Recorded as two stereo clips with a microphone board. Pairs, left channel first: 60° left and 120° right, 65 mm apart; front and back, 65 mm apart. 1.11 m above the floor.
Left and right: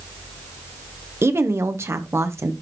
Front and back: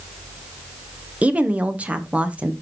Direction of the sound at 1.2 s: 120° right.